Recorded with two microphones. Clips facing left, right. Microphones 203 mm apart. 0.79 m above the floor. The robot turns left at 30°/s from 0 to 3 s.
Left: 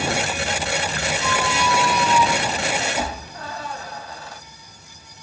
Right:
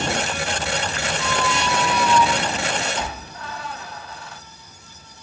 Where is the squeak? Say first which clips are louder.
Even; 15° right (ahead or behind), 1.6 m; by 4.4 s 40° left (ahead or behind), 1.6 m.